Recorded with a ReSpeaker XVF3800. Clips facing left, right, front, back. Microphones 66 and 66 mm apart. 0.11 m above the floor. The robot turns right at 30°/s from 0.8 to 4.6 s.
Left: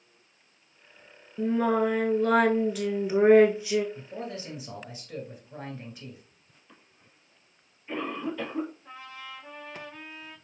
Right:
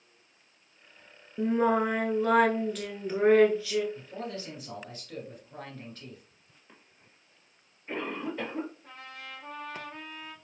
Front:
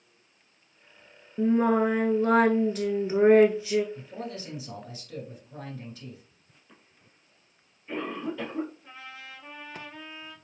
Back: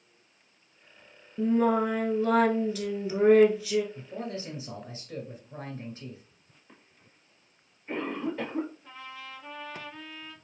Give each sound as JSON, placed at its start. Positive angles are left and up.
{"t": 1.4, "sound": "singing", "azimuth_deg": -35, "distance_m": 0.9}
{"t": 4.0, "sound": "a man speaking", "azimuth_deg": 140, "distance_m": 1.7}
{"t": 6.7, "sound": "a cough", "azimuth_deg": -140, "distance_m": 2.0}
{"t": 8.8, "sound": "a trumpet", "azimuth_deg": -70, "distance_m": 2.5}